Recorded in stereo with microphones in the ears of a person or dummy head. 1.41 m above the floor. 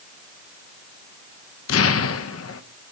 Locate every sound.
1.7 s an explosion: 65° left (ahead or behind), 0.6 m